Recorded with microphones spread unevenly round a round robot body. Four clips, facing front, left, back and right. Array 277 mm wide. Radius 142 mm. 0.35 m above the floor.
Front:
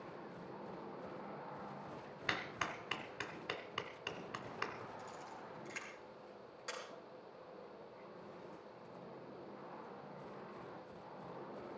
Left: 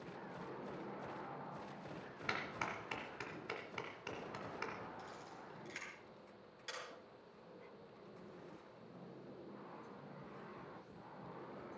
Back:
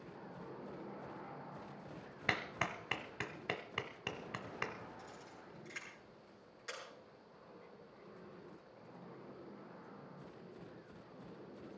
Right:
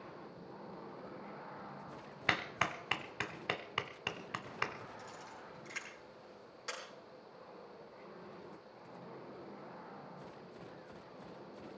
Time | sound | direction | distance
2.3 | a clap | 125° right | 1.3 m
5.0 | a camera shutter | 35° right | 5.5 m